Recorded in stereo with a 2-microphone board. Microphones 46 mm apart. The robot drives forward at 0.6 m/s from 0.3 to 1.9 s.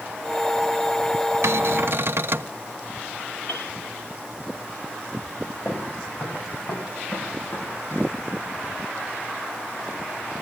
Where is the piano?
60° left (ahead or behind), 5.5 m.